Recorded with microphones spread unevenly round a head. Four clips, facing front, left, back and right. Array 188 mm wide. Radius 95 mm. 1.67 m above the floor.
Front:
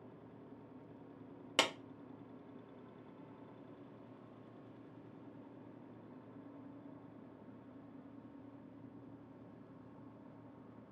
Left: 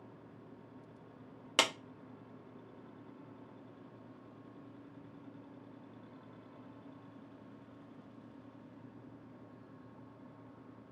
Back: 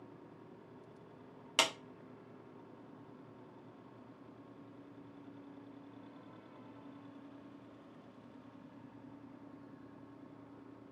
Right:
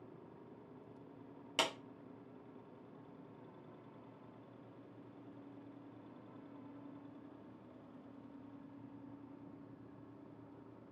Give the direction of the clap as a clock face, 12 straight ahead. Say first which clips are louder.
Left 4 dB, back 1 dB; 10 o'clock.